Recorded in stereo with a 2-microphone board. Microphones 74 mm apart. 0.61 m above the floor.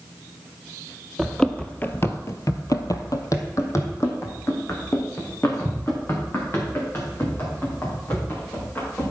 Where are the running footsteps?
5° left (ahead or behind), 1.2 m; by 9.1 s 30° left (ahead or behind), 6.5 m.